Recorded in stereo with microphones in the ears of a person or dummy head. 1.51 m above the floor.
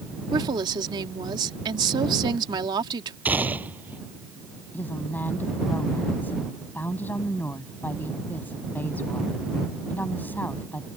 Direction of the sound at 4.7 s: 15° left (ahead or behind).